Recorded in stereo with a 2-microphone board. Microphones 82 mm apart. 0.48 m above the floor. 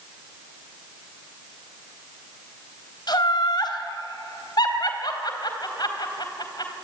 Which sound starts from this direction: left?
Laughter, at 3.1 s.